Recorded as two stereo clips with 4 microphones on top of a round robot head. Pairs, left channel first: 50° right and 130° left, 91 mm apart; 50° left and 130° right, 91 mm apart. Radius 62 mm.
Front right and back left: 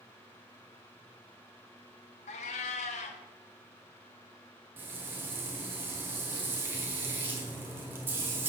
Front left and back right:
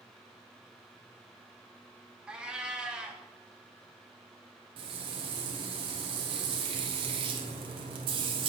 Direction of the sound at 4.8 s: 165° right.